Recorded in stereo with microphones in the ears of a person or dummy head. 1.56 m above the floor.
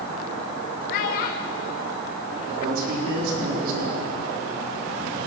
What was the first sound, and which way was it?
A child speaking, 50° left (ahead or behind).